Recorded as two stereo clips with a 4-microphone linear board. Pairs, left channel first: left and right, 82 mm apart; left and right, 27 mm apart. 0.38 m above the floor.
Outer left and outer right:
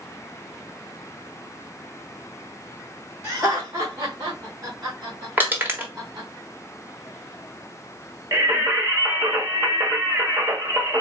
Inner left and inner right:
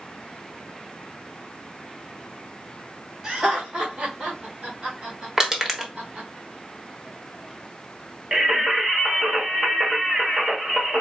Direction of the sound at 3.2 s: 35° right (ahead or behind).